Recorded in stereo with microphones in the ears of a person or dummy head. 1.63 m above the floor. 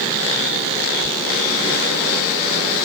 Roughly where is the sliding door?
Left.